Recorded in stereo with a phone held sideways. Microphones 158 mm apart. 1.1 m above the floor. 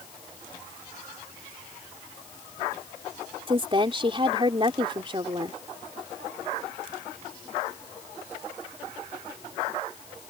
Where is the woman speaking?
35° right (ahead or behind).